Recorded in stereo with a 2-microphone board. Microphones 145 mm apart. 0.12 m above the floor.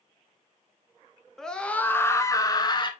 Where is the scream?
5° left (ahead or behind), 1.1 m; by 2.9 s 35° left (ahead or behind), 1.2 m.